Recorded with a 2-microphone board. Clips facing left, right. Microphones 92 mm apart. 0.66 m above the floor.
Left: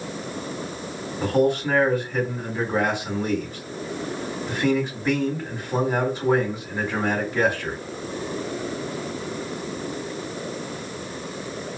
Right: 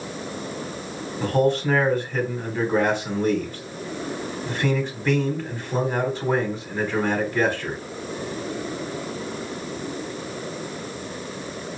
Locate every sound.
1.2 s a man speaking: 10° left (ahead or behind), 2 m